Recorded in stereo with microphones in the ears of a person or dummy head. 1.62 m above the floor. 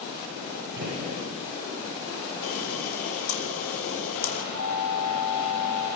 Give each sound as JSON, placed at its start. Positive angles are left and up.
{"t": 0.8, "sound": "a gunshot", "side_deg": -60, "distance_m": 9.0}
{"t": 2.4, "sound": "a camera shutter", "side_deg": 75, "distance_m": 3.0}
{"t": 4.5, "sound": "an alarm", "side_deg": -60, "distance_m": 4.0}